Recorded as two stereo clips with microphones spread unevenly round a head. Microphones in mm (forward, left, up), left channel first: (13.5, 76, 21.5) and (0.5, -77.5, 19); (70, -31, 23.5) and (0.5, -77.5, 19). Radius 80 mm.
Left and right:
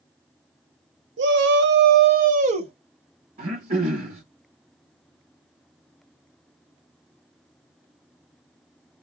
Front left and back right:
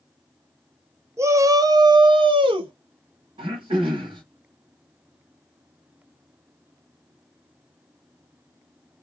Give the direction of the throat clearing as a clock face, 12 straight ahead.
5 o'clock.